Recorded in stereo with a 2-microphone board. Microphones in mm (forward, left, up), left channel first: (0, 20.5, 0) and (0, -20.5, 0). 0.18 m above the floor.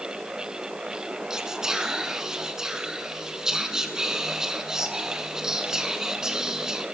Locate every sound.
1.3 s whispering: 15° right (ahead or behind), 1.8 m